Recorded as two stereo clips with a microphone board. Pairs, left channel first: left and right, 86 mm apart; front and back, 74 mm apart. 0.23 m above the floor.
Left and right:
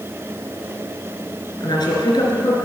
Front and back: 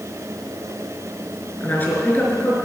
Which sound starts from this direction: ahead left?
A woman speaking, at 1.6 s.